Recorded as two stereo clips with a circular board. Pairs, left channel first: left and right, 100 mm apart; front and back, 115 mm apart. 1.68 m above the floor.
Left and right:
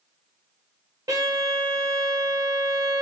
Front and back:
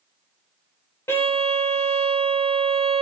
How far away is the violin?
About 0.7 m.